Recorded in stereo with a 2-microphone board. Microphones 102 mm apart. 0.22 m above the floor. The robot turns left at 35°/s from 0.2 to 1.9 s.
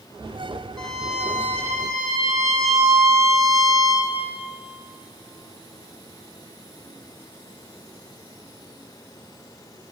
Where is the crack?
No crack in this recording.